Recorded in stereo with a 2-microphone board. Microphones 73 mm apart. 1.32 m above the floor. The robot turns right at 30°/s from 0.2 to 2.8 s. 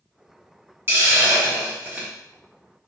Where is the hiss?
30° right (ahead or behind), 1.0 m; by 2.1 s 20° right (ahead or behind), 1.0 m.